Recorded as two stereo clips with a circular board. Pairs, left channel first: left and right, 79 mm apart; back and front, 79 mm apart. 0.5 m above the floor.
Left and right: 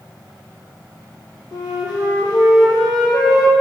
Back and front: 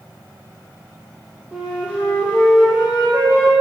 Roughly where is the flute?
Left.